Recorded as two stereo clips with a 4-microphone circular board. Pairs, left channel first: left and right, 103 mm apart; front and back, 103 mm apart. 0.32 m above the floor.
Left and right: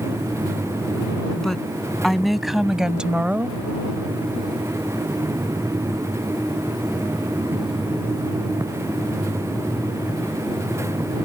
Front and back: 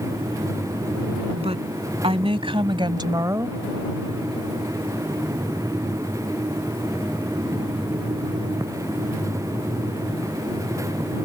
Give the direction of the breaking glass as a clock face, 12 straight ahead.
I don't hear breaking glass.